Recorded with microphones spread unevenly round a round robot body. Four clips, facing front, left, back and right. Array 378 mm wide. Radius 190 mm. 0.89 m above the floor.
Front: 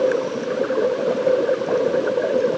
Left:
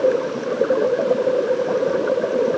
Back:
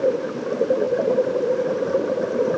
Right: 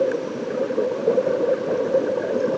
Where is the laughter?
I don't hear laughter.